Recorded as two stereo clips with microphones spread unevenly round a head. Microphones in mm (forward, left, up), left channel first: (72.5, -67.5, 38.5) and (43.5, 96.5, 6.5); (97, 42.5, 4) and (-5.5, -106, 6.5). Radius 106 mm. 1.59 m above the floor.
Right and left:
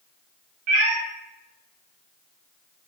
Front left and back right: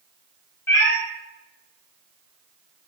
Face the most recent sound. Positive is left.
turn(degrees=125)